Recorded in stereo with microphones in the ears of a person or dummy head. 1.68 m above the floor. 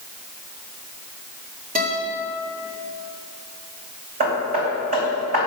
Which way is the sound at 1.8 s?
45° right (ahead or behind).